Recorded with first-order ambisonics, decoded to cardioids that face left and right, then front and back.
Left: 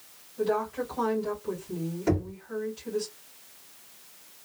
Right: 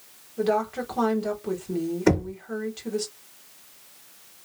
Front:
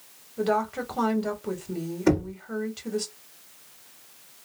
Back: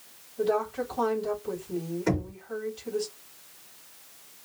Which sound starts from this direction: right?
Knocking, at 2.1 s.